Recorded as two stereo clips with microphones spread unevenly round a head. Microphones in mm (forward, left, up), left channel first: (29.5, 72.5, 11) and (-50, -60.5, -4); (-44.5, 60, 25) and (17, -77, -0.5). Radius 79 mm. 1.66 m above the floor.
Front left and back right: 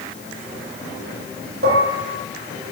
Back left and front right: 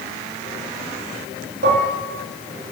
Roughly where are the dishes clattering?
Right.